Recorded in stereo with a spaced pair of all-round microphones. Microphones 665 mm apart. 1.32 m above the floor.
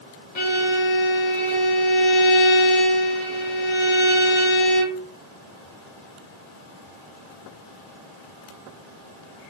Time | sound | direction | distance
0.3 | a violin | 45° left (ahead or behind) | 0.8 m